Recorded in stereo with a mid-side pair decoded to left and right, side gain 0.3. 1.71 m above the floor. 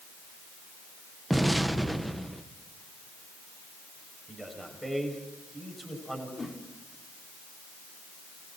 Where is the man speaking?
10° right, 8 m.